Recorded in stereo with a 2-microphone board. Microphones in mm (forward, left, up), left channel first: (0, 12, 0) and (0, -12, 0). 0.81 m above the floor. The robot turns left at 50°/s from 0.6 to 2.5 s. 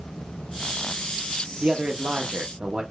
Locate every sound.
1.6 s a man speaking: 60° right, 0.5 m; by 2.8 s 105° right, 0.5 m